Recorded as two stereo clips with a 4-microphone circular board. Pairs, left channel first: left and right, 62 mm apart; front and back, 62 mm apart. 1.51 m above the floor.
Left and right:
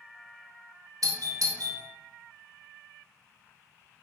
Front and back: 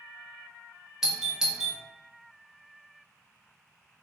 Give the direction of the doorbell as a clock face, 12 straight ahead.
3 o'clock.